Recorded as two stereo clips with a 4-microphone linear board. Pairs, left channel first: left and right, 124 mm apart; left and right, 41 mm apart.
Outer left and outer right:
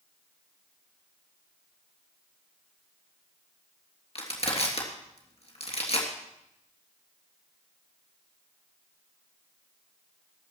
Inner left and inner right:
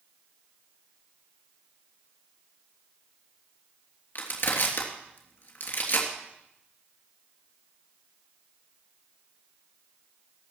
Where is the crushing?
55° left (ahead or behind), 3 m.